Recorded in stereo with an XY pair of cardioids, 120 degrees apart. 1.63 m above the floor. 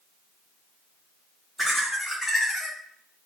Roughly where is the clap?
I don't hear a clap.